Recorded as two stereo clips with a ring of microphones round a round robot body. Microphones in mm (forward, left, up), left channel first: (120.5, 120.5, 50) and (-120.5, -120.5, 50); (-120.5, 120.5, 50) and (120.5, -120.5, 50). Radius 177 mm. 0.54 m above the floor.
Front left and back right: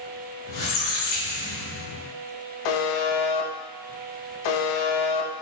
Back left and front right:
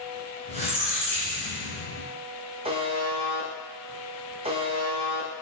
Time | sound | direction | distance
0.5 | a squeak | 25° left | 1.6 m
2.6 | a buzzer | 30° left | 0.6 m